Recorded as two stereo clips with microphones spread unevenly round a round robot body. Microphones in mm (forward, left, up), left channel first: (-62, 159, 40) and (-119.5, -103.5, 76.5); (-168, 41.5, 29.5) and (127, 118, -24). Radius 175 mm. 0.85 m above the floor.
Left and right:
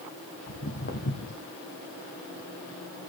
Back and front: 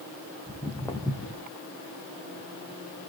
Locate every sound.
0.5 s footsteps: 120° left, 1.9 m